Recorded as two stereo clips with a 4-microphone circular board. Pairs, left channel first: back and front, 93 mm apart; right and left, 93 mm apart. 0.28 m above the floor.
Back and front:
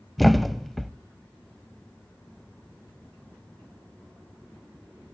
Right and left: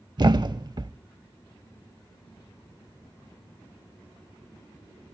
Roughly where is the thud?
Left.